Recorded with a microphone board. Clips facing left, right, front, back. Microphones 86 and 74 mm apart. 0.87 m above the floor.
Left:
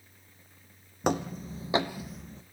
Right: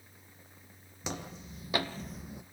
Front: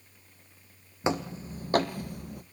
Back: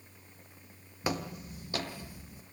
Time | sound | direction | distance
1.0 | footsteps | 65° left | 2.0 m